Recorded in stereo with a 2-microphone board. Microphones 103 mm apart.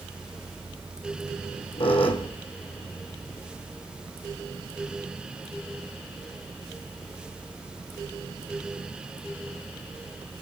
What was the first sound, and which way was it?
A squeak, 60° left (ahead or behind).